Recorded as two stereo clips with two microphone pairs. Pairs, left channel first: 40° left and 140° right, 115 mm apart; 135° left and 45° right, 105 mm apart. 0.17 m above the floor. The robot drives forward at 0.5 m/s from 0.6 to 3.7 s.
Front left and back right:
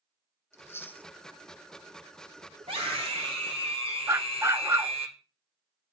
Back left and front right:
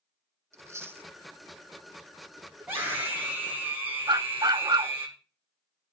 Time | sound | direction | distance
0.5 | chewing | 5° right | 0.7 m
2.6 | a scream | 115° right | 8.5 m
4.1 | a dog barking | 80° right | 0.6 m